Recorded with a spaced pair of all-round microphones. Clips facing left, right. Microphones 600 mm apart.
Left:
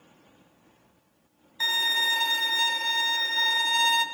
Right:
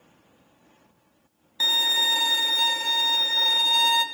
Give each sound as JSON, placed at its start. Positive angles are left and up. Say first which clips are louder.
{"t": 1.6, "sound": "a violin", "louder": "right 3 dB", "side_deg": -60, "distance_m": 0.5}